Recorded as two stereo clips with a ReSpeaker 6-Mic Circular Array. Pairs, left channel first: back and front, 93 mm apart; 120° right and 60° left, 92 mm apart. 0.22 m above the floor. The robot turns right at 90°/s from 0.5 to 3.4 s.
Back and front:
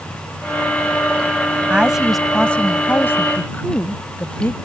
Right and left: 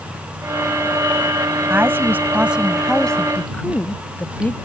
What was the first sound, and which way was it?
A woman speaking, 50° left.